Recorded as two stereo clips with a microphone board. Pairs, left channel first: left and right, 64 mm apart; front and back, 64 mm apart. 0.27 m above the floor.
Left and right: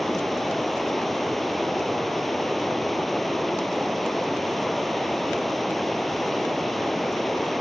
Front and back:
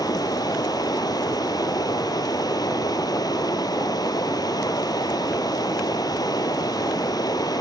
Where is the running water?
Straight ahead, 1.6 m.